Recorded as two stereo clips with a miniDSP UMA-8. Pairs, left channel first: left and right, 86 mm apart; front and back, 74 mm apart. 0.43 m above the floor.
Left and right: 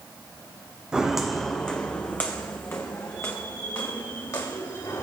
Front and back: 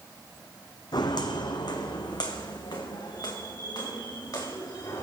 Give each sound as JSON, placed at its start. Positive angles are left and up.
{"t": 0.9, "sound": "footsteps", "azimuth_deg": -10, "distance_m": 1.1}